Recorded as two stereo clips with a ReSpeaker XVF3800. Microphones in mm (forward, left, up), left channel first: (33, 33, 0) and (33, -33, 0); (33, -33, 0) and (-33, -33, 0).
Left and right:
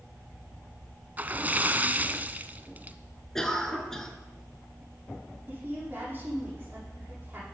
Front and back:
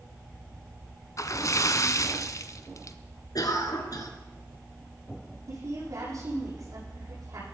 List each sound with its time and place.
1.2 s a splash: 25° right, 0.9 m
3.4 s a cough: 10° left, 3 m
5.5 s a woman speaking: 150° right, 9.5 m